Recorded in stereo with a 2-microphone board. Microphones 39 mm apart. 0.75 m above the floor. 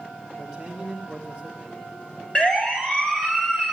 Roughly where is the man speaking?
Centre.